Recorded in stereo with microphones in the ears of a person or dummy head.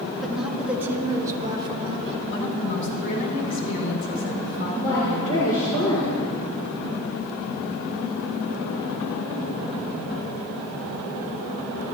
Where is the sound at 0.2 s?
Centre (ahead or behind), 2.5 m; by 2.2 s 35° right (ahead or behind), 2 m.